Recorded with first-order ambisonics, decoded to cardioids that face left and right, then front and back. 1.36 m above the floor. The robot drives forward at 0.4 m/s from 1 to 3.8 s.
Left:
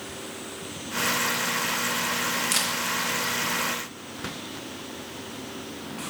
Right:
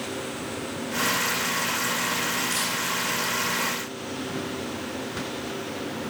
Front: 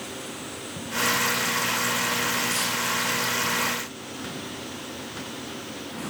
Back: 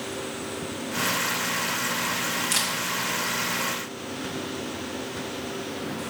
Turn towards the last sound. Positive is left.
turn(degrees=135)